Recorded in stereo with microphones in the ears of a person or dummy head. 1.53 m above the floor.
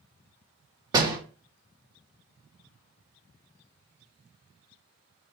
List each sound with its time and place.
0.9 s a door slam: 20° right (ahead or behind), 2 m